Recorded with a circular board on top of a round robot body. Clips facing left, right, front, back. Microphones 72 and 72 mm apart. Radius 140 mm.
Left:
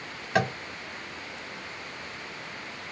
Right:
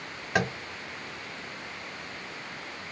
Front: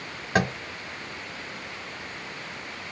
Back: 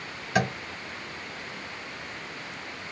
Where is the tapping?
15° right, 1.8 m.